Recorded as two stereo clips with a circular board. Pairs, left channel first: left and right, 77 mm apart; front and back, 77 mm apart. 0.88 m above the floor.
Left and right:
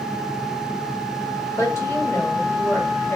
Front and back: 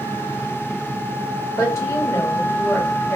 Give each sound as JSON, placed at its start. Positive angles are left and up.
{"t": 1.6, "sound": "a woman speaking", "azimuth_deg": 40, "distance_m": 1.2}